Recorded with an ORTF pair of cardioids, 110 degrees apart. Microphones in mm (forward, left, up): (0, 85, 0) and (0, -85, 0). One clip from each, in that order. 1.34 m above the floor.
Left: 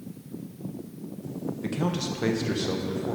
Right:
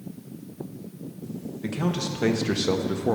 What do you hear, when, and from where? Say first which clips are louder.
1.6 s a man speaking: right 2 dB; 5° left, 1.4 m; by 3.1 s 45° right, 1.0 m